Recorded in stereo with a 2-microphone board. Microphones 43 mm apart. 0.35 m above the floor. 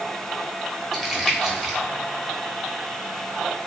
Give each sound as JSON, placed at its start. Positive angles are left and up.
{"t": 0.9, "sound": "crumpling", "side_deg": -5, "distance_m": 0.9}